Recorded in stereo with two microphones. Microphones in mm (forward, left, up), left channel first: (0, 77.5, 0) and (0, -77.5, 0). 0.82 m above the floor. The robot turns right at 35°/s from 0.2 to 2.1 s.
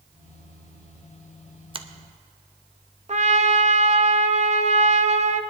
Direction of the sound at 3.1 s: 50° right (ahead or behind).